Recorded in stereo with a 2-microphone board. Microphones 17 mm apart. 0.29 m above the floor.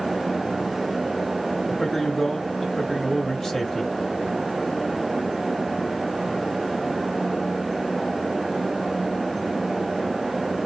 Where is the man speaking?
30° left (ahead or behind), 1.2 m.